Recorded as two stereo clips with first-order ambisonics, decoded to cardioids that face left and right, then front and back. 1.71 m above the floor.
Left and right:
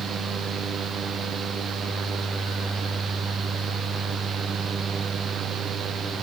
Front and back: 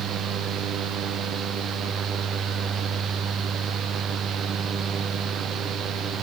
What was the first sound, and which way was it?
Only background noise.